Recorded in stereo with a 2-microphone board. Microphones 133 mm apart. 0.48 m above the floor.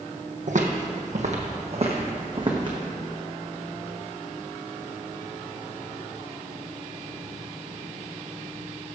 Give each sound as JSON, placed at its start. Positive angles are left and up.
{"t": 0.5, "sound": "footsteps", "side_deg": -60, "distance_m": 0.9}